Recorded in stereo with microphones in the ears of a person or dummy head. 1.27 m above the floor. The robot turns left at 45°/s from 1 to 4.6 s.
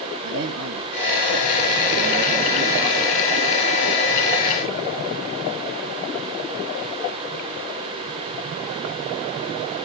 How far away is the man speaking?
About 2.5 m.